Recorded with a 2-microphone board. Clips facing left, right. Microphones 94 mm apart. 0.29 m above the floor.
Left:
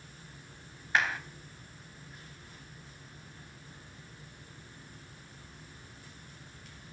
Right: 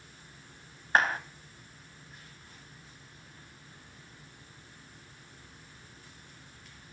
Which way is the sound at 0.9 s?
40° right (ahead or behind).